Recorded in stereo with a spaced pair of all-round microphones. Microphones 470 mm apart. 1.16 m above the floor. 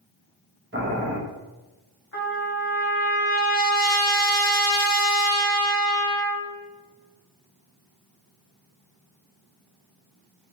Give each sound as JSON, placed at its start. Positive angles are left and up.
{"t": 0.7, "sound": "boiling", "side_deg": -25, "distance_m": 0.8}
{"t": 2.1, "sound": "a trumpet", "side_deg": 25, "distance_m": 1.7}